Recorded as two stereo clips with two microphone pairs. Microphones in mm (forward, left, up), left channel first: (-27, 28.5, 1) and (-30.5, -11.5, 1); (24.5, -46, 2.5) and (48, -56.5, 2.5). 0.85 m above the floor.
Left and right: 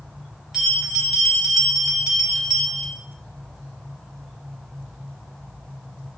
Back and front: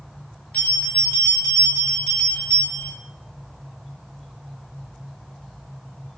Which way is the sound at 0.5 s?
170° right.